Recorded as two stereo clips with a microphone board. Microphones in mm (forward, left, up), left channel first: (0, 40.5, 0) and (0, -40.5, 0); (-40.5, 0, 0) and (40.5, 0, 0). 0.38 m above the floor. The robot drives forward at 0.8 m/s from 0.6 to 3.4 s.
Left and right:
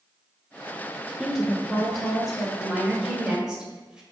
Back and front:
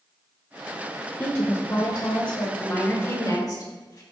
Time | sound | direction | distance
1.2 | a woman speaking | 165° right | 0.8 m
2.6 | a woman speaking | 150° right | 1.3 m